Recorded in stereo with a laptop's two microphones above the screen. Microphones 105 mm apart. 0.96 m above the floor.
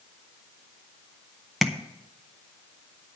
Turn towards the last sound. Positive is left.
turn(degrees=0)  # may be behind; listen again after turning